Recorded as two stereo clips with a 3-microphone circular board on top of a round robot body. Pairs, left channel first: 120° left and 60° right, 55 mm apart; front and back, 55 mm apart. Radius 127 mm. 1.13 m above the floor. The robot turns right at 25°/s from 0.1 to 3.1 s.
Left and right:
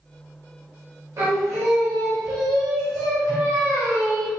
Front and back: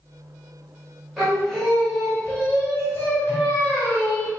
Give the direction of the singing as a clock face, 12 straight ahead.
3 o'clock.